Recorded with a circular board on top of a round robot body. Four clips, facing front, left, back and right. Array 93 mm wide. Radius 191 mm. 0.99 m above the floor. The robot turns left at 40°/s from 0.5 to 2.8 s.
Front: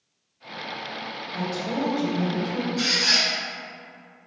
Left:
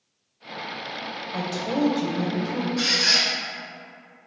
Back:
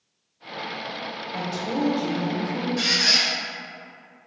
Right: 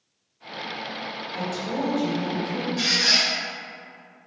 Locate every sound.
1.3 s a woman speaking: 110° left, 1.1 m; by 2.7 s 55° left, 1.1 m
2.8 s a squeak: 170° left, 1.0 m